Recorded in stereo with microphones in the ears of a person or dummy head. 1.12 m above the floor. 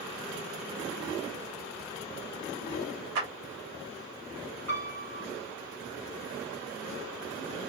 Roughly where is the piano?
Right.